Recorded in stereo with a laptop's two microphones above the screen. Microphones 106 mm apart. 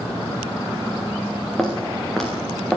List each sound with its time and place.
1.6 s footsteps: 5° left (ahead or behind), 8 m